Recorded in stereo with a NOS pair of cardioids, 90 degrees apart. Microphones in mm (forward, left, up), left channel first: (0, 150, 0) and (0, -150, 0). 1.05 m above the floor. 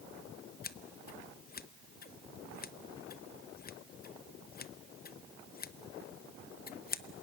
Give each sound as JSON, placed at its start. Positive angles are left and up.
{"t": 0.6, "sound": "scissors", "azimuth_deg": 30, "distance_m": 0.7}